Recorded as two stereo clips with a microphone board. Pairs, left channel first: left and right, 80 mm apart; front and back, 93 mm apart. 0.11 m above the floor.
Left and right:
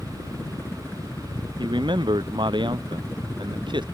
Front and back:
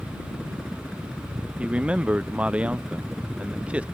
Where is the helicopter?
80° left; by 4.0 s 95° left.